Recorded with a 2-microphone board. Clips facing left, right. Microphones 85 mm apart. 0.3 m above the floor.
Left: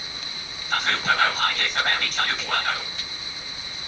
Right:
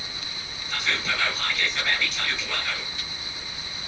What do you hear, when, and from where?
0.7 s whispering: 40° left (ahead or behind), 3 m